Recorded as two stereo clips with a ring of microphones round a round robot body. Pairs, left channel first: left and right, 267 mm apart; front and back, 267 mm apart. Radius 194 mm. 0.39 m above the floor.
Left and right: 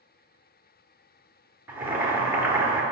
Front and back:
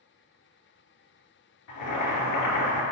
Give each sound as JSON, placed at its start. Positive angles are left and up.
{"t": 1.7, "sound": "boiling", "azimuth_deg": -10, "distance_m": 2.5}